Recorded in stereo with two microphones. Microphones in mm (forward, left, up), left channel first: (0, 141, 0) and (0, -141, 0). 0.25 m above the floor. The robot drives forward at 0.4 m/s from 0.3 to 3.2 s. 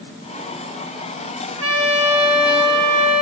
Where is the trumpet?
65° right (ahead or behind), 1.0 m; by 3.2 s 75° right (ahead or behind), 1.0 m.